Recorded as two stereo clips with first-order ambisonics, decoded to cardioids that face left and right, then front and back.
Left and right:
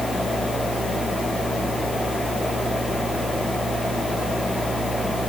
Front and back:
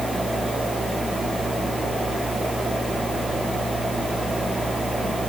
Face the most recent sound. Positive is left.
No sound to turn to.